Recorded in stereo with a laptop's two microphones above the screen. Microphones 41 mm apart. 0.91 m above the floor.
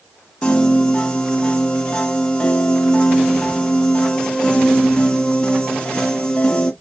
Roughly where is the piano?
Left.